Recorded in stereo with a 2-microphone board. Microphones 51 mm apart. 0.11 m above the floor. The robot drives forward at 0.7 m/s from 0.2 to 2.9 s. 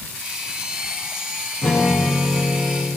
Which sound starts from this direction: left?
A guitar, at 1.6 s.